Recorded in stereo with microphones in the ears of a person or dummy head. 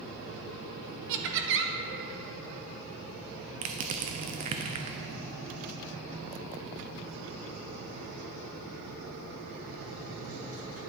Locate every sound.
1.1 s laughter: 75° right (ahead or behind), 1.3 m
3.6 s crushing: 25° right (ahead or behind), 0.7 m